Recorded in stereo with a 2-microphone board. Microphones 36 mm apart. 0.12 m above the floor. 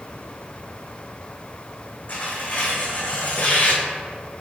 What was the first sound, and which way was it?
Tearing paper, 50° left (ahead or behind).